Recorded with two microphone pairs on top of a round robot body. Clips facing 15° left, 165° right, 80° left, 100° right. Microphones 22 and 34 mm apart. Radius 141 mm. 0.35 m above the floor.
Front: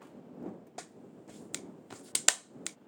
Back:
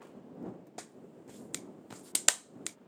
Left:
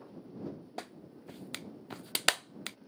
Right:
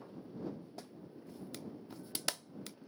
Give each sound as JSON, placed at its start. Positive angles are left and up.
{"t": 0.8, "sound": "a clap", "azimuth_deg": 75}